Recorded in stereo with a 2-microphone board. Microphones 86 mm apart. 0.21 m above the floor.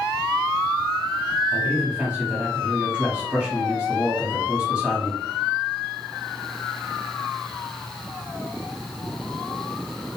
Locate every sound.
1.5 s a man speaking: 10° right (ahead or behind), 1.2 m